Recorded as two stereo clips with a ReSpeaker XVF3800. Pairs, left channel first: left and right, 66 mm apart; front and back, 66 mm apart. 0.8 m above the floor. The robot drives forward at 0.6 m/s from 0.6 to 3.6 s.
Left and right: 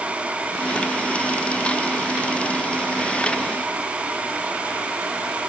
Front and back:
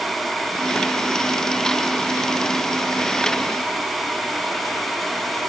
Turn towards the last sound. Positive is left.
No sound to turn to.